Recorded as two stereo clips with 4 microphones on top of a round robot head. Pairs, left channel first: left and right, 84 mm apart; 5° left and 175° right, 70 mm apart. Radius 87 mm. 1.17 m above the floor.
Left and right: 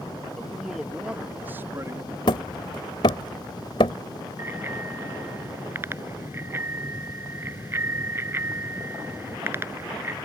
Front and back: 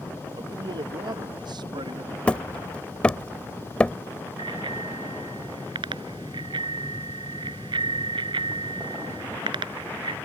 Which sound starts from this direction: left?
Hammering, at 2.3 s.